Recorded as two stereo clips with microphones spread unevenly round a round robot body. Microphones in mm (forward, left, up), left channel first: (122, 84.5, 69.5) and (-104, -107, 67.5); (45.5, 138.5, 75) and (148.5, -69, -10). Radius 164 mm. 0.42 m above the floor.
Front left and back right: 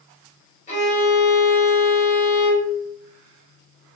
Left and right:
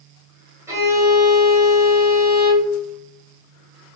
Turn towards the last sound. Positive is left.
turn(degrees=-15)